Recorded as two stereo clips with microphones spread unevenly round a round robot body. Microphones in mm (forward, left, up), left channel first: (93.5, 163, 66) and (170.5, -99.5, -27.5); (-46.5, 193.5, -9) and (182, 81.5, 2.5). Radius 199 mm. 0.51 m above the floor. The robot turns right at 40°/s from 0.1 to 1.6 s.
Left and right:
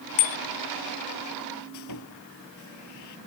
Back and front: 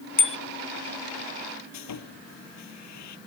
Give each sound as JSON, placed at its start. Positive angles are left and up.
{"t": 0.2, "sound": "a bicycle bell", "azimuth_deg": 110}
{"t": 1.7, "sound": "sawing", "azimuth_deg": 155}